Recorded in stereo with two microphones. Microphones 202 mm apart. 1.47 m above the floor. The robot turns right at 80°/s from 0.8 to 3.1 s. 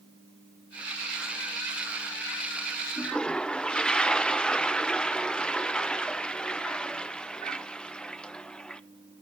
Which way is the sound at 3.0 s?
15° left (ahead or behind).